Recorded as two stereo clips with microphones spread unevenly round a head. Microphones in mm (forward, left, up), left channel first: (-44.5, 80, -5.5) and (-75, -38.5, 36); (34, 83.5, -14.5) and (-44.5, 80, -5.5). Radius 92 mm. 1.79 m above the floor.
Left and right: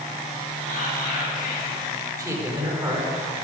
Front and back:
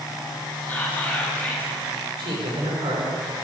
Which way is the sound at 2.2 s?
165° right.